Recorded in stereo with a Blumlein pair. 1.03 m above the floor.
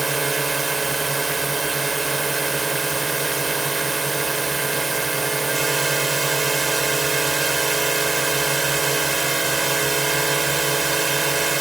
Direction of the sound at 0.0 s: 10° right.